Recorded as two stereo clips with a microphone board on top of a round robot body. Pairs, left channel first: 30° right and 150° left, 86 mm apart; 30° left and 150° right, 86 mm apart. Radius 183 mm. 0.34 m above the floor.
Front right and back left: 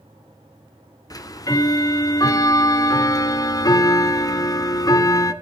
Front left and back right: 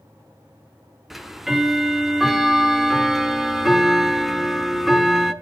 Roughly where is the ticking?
Ahead right.